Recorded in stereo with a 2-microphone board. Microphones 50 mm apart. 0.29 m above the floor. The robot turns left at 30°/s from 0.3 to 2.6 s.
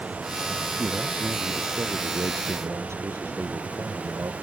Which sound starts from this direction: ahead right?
A man speaking, at 0.8 s.